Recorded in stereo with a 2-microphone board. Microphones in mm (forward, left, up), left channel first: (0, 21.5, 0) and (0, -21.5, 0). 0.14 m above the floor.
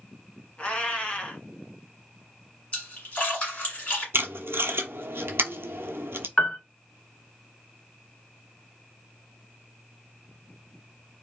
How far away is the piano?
About 0.7 m.